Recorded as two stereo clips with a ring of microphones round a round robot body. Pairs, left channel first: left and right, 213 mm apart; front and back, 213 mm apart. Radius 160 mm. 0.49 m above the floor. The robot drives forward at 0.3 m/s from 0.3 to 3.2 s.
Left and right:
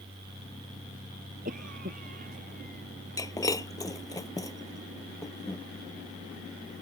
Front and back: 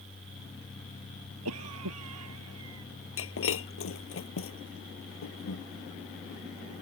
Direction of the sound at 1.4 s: 155° right.